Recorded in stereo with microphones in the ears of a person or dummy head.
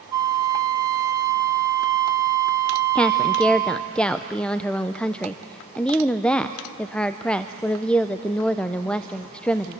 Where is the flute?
25° right (ahead or behind), 0.9 m.